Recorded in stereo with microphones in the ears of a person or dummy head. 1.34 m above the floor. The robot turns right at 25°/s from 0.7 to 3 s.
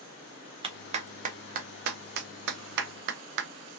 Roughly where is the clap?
Right.